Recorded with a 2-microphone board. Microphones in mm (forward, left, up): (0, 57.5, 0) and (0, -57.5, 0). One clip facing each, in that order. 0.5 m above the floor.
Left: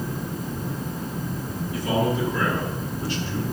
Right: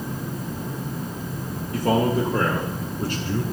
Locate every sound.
1.7 s a man speaking: 50° right (ahead or behind), 2.5 m